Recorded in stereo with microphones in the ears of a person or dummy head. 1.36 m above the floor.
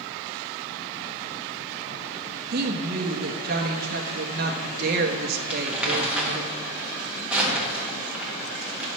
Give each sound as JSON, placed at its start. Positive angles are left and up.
{"t": 2.5, "sound": "a woman speaking", "side_deg": -50, "distance_m": 1.0}
{"t": 5.5, "sound": "crumpling", "side_deg": -5, "distance_m": 1.3}